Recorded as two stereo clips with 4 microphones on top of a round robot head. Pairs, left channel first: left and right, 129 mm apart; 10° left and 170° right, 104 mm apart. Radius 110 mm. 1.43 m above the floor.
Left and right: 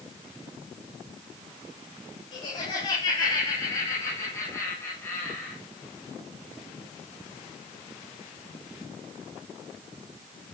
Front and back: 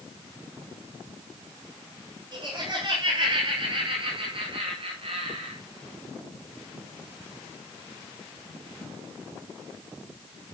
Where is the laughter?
140° left, 4.5 m; by 5.6 s 175° left, 2.5 m.